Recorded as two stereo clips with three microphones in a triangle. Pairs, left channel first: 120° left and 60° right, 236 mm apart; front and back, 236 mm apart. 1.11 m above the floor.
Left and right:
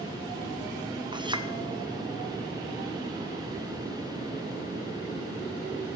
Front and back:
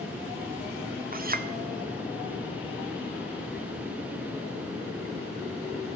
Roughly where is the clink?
Behind right.